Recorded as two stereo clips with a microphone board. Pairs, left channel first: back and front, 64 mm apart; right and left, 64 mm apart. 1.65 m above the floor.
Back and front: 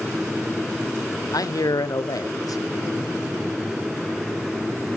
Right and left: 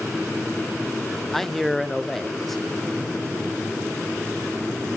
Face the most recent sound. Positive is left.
turn(degrees=-175)